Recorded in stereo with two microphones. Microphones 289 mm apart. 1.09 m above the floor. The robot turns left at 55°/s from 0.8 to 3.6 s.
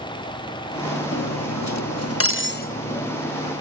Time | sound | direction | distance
1.1 | cutlery clinking | 120° left | ?